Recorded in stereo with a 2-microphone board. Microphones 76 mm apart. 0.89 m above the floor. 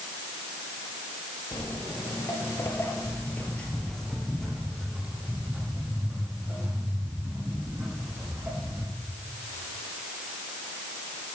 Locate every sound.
1.5 s footsteps: 55° left (ahead or behind), 1.5 m; by 8.8 s 25° right (ahead or behind), 4 m